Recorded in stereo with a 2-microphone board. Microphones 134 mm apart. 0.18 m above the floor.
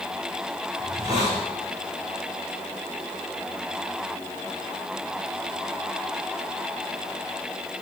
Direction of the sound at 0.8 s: 55° right (ahead or behind).